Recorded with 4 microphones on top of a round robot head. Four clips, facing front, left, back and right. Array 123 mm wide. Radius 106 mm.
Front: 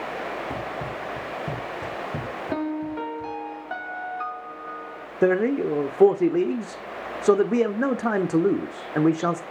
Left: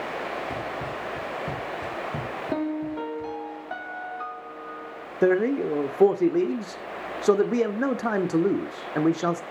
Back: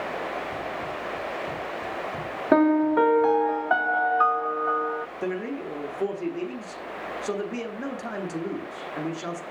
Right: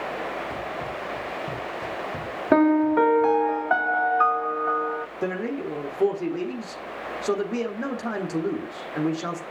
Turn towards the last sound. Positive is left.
turn(degrees=30)